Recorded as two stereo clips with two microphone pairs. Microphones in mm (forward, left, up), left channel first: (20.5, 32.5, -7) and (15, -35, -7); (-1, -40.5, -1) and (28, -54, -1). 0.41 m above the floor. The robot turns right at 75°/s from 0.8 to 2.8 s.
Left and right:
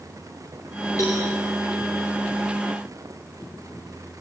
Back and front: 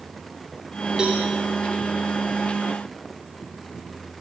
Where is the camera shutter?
I don't hear a camera shutter.